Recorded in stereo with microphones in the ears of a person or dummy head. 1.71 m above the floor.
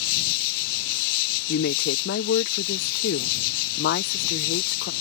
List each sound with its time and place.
0.0 s an insect: 65° left (ahead or behind)
1.5 s a woman speaking: 55° left (ahead or behind)